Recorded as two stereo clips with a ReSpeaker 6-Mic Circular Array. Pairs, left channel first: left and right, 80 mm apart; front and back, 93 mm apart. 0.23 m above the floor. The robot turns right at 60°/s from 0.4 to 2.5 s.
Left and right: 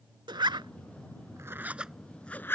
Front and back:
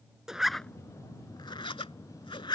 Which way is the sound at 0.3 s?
95° right.